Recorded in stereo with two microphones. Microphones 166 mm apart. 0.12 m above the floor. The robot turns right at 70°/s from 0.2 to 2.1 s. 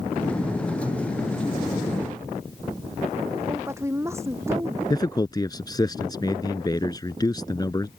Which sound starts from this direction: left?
A man speaking, at 4.9 s.